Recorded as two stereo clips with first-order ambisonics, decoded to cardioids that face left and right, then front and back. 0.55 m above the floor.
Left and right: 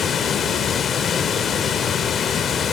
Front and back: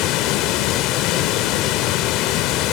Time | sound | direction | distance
0.0 | running water | 25° left | 1.2 m